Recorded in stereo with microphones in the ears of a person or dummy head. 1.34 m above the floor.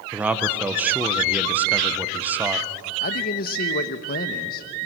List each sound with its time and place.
0.1 s a man speaking: centre (ahead or behind), 1.1 m
3.0 s a man speaking: 55° left (ahead or behind), 1.1 m